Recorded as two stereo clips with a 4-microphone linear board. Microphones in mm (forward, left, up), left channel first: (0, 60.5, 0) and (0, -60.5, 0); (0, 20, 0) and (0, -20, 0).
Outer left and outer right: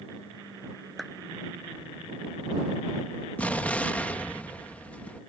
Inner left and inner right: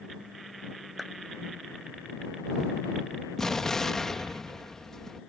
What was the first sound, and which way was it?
A clap, centre (ahead or behind).